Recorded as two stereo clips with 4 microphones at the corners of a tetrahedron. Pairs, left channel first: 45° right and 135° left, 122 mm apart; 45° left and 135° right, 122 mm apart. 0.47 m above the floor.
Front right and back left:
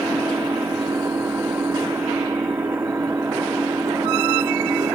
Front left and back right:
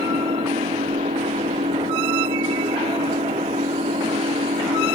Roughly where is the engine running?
Behind right.